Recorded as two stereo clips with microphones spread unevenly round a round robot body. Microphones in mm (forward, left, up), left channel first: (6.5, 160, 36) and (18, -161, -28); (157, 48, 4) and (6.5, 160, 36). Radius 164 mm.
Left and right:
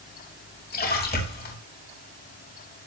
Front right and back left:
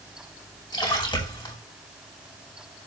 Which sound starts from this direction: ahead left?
A splash, at 0.7 s.